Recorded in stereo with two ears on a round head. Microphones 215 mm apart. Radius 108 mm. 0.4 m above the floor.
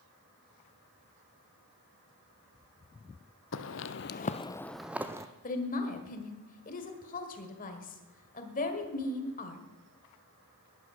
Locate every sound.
3.5 s footsteps: 55° left (ahead or behind), 0.8 m; by 5.3 s 15° right (ahead or behind), 1.0 m
5.4 s a woman speaking: 35° left (ahead or behind), 1.6 m